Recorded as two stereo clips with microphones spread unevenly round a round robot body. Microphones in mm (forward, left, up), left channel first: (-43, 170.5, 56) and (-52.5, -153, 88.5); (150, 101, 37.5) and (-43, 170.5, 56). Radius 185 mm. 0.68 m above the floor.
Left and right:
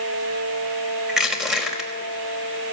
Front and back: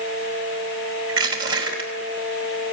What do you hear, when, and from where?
1.1 s crushing: straight behind, 4 m